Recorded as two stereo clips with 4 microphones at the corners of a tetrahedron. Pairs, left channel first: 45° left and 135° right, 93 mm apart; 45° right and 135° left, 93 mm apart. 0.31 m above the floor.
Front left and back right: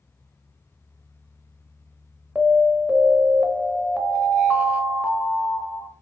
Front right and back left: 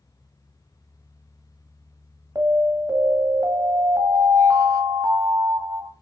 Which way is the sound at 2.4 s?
155° left.